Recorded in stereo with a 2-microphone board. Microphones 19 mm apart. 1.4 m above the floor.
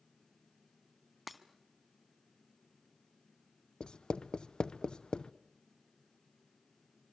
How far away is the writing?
About 0.8 m.